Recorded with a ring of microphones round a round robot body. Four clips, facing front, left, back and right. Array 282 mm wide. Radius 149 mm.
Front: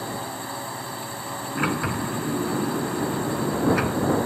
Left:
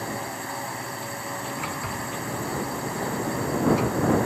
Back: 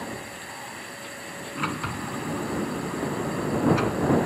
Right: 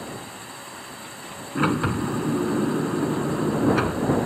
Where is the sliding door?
70° right.